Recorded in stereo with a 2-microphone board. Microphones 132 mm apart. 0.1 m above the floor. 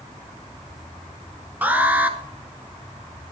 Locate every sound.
1.6 s an alarm: 15° right (ahead or behind), 1.1 m